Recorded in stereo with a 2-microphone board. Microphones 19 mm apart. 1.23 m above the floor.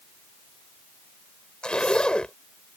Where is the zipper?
65° left (ahead or behind).